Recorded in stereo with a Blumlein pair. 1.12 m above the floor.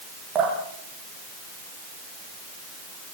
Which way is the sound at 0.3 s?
25° right.